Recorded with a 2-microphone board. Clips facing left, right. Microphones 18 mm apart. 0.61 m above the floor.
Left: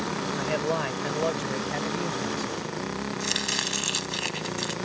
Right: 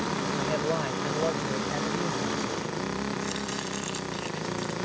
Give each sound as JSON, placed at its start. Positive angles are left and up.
{"t": 0.4, "sound": "a man speaking", "side_deg": 25}
{"t": 3.2, "sound": "chopping", "side_deg": 50}